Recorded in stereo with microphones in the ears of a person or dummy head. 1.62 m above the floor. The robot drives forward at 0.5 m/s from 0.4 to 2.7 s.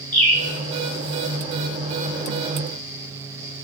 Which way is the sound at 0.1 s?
10° left (ahead or behind).